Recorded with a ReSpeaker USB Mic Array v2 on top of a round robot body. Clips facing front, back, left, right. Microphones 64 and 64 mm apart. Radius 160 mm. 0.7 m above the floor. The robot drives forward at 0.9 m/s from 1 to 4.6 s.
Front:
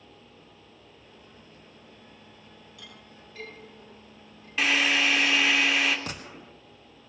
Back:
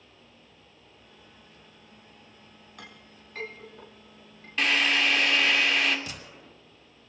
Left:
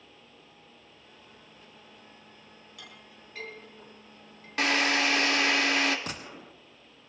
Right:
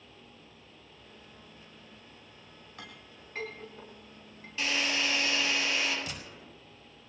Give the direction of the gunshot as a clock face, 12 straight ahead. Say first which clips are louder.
Front 4 dB, left 4 dB; 10 o'clock.